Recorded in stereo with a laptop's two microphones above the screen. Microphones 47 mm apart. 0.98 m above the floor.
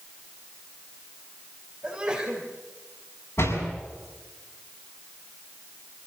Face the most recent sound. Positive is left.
turn(degrees=70)  # may be behind; listen again after turning